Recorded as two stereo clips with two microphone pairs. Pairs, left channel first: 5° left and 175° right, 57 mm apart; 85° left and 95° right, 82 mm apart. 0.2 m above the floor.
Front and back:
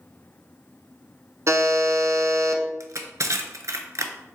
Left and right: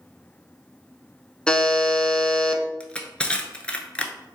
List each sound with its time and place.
1.5 s a buzzer: 165° left, 0.6 m
2.8 s crushing: 160° left, 0.6 m